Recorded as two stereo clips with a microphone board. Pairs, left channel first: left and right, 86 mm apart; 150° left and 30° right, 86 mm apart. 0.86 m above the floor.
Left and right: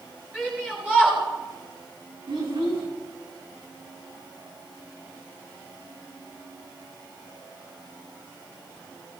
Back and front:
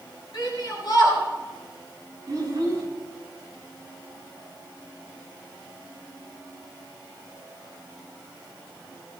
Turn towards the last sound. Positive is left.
turn(degrees=-80)